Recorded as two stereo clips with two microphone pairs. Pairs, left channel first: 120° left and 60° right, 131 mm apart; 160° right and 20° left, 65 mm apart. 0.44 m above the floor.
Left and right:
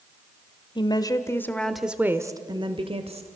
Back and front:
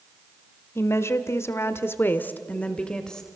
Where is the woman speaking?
160° left, 1.5 m; by 3.3 s 80° right, 1.7 m.